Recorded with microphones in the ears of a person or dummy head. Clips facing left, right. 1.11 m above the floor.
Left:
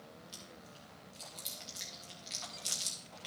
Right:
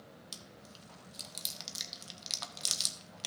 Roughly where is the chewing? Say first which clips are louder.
Even; right.